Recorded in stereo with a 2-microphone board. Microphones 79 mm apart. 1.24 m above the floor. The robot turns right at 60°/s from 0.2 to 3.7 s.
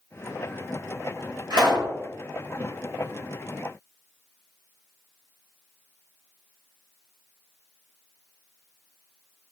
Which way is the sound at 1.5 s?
60° right (ahead or behind).